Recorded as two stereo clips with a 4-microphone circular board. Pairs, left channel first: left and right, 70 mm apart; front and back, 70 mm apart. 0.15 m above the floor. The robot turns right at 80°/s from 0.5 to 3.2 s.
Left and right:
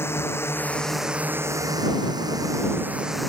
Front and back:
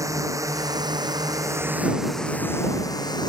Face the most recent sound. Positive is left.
turn(degrees=0)